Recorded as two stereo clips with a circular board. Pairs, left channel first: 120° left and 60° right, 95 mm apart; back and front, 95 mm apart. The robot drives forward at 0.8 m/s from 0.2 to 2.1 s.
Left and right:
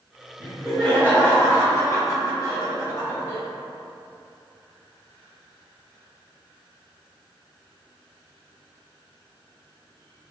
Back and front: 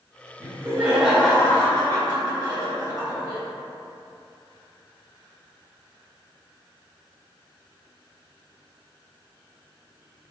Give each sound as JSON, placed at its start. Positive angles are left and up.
{"t": 0.4, "sound": "laughter", "azimuth_deg": 30, "distance_m": 1.0}